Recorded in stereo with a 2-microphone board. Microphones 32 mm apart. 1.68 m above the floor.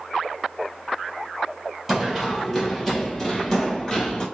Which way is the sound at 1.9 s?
10° right (ahead or behind).